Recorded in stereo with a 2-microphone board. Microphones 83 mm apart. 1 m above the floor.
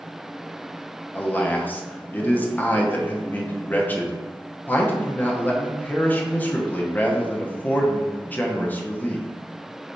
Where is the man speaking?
20° left (ahead or behind), 0.6 m.